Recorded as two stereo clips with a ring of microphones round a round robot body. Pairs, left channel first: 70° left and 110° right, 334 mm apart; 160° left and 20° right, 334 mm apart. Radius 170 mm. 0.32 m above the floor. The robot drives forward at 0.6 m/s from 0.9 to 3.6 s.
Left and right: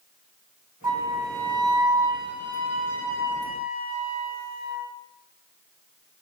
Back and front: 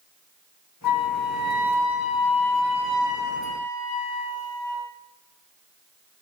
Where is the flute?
170° left, 2.5 m; by 4.8 s 175° left, 4 m.